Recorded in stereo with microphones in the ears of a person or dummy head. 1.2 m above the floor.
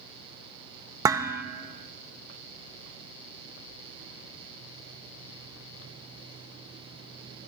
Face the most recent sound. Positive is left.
turn(degrees=-20)  # may be behind; listen again after turning